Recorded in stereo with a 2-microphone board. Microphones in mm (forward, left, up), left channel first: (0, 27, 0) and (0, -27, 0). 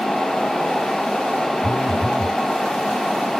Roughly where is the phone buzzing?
Left.